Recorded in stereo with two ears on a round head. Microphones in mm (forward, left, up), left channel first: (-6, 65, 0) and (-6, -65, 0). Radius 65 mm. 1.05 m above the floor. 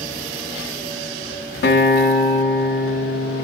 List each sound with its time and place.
1.6 s a guitar: 75° left (ahead or behind), 1.0 m